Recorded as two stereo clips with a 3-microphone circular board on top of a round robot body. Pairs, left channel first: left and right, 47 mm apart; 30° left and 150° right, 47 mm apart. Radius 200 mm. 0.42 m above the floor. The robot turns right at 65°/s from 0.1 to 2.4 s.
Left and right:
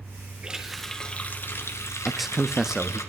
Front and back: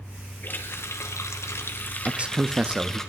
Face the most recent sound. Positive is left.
turn(degrees=-165)